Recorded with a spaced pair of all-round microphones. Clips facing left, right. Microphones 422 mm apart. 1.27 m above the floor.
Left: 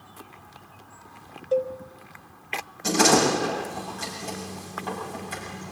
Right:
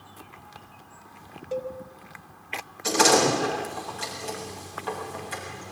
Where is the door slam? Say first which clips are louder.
Left 1 dB; 60° left (ahead or behind), 7.5 m.